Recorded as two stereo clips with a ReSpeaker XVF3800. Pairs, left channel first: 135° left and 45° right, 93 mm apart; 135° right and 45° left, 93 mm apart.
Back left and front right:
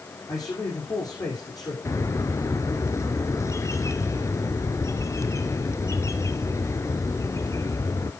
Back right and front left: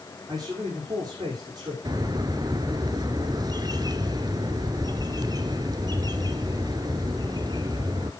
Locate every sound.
0.3 s a man speaking: 90° left, 7 m
1.9 s a bird: 80° left, 0.9 m